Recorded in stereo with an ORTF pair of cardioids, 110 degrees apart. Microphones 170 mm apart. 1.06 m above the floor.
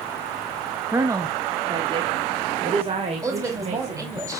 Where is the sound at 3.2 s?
20° right, 5 m.